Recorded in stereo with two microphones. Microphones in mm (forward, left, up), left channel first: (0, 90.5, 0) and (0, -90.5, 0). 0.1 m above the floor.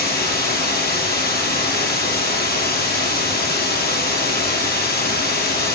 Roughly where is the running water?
Left.